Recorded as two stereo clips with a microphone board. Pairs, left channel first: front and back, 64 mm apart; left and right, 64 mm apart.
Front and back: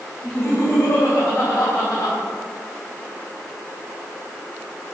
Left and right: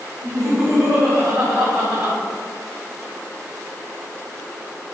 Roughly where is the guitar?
I don't hear a guitar.